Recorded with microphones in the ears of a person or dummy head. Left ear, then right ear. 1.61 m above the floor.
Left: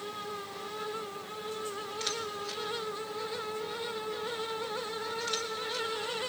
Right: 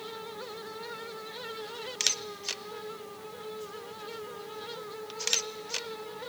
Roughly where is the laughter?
No laughter in this recording.